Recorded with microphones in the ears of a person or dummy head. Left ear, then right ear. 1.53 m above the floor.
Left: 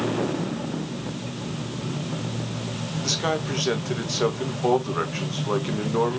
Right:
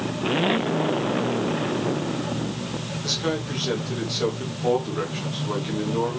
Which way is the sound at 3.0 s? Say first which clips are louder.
Left 1 dB; 35° left (ahead or behind).